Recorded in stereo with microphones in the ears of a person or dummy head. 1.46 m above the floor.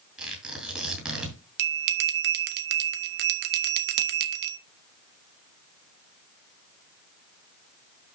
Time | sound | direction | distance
0.2 | tearing paper | 5° right (ahead or behind) | 6.5 m
1.6 | a bell | 60° right (ahead or behind) | 1.5 m